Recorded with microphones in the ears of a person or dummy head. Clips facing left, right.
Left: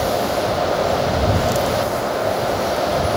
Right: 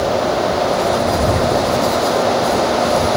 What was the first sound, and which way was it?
Only background noise.